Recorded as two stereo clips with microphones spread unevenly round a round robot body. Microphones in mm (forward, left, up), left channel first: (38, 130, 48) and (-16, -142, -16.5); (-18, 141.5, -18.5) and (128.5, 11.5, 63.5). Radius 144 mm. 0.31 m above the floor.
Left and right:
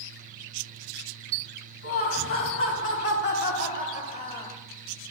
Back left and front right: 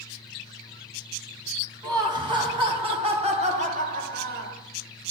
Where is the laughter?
40° left, 2 m; by 4.6 s 10° right, 1.1 m.